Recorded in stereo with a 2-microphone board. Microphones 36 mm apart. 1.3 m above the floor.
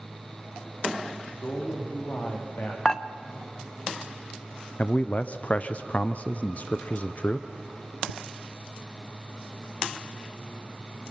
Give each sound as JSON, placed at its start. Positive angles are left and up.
{"t": 1.3, "sound": "a man speaking", "side_deg": 70, "distance_m": 3.0}
{"t": 2.9, "sound": "dishes clattering", "side_deg": 20, "distance_m": 0.8}
{"t": 4.8, "sound": "a man speaking", "side_deg": 40, "distance_m": 0.6}